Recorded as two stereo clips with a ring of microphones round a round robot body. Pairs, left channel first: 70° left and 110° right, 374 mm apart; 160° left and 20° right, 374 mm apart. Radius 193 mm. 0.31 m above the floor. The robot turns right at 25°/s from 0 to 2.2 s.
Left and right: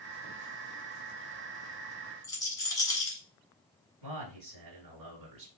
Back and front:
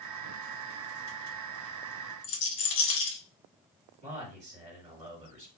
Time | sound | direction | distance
2.2 | a rattle | 150° left | 1.6 m
4.0 | a man speaking | 105° right | 2 m